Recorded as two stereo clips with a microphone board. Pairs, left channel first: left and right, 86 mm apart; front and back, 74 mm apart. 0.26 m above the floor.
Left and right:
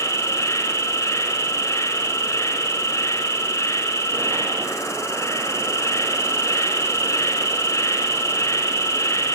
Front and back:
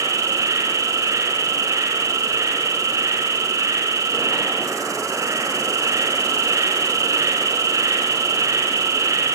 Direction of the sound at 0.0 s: 145° left.